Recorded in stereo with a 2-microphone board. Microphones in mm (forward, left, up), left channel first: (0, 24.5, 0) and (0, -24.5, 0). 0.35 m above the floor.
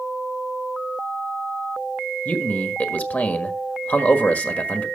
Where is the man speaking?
35° left (ahead or behind), 1.4 m.